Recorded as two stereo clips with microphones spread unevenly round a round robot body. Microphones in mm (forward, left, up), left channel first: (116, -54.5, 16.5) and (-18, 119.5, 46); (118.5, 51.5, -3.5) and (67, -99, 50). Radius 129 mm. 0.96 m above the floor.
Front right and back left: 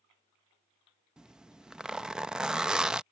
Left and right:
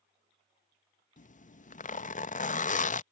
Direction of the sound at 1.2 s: 40° left.